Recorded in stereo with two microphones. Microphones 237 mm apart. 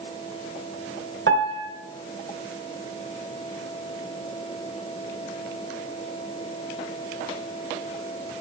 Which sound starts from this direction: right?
A piano, at 1.3 s.